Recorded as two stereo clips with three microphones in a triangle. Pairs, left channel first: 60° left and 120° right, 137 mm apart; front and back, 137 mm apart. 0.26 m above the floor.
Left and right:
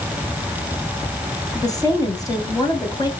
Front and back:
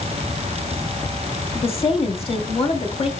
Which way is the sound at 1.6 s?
10° left.